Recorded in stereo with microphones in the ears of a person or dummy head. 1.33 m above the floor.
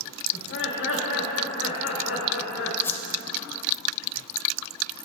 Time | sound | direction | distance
0.3 | laughter | 85° left | 2.5 m
2.8 | a whoosh | 25° left (ahead or behind) | 1.5 m